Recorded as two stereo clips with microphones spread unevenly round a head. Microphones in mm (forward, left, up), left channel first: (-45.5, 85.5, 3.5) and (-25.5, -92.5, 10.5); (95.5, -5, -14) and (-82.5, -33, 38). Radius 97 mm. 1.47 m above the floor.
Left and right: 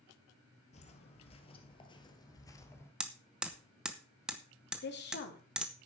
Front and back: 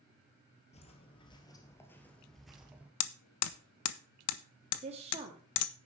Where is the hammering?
Straight ahead, 0.8 m.